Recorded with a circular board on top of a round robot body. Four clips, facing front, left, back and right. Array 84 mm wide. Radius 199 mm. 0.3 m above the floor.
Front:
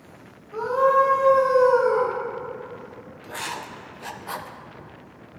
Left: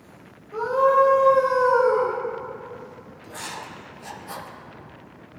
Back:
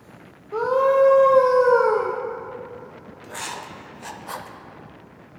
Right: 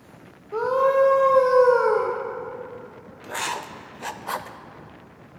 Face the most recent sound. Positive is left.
turn(degrees=-85)